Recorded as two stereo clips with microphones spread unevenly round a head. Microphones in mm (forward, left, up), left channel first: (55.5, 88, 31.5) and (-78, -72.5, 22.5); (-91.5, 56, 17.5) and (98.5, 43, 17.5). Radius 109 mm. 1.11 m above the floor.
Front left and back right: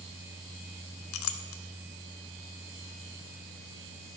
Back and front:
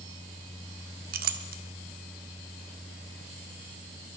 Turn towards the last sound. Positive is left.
turn(degrees=35)